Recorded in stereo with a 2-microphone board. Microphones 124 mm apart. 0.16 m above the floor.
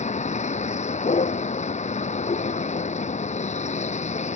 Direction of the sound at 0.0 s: 70° left (ahead or behind).